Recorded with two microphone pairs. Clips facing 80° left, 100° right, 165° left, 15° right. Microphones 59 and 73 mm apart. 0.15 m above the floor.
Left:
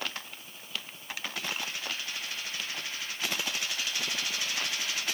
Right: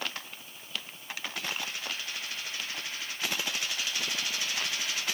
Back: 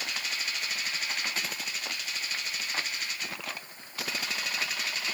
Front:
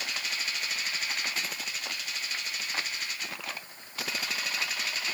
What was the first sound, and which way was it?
Only background noise.